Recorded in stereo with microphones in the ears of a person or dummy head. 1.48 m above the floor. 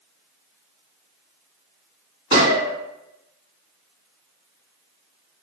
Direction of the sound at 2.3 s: 35° right (ahead or behind).